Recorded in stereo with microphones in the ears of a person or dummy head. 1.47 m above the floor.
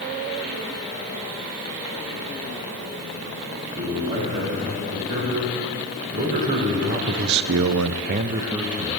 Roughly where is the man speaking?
Right.